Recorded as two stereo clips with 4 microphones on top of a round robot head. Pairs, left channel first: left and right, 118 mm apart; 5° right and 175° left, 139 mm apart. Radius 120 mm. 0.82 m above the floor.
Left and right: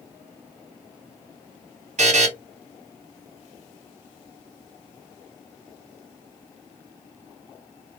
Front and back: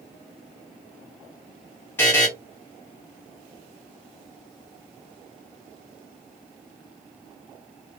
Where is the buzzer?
80° right, 1.3 m.